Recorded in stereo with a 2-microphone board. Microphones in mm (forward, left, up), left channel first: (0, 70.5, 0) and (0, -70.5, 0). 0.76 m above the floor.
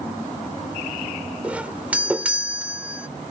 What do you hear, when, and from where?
1.4 s a doorbell: 10° right (ahead or behind)